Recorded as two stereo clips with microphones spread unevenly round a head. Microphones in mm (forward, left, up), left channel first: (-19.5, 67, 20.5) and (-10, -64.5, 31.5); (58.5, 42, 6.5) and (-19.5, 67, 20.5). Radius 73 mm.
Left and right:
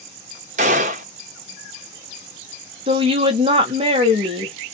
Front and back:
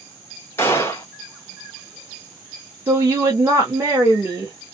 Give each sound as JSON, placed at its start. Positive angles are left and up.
{"t": 0.6, "sound": "a gunshot", "azimuth_deg": -95, "distance_m": 0.5}
{"t": 2.9, "sound": "a woman speaking", "azimuth_deg": -130, "distance_m": 0.9}